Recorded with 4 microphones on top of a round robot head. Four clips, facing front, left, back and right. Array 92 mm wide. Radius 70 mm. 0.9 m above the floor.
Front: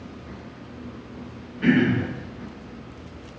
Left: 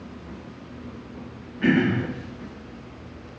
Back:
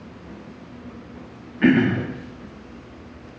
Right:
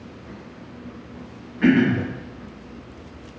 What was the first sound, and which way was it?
Throat clearing, 160° right.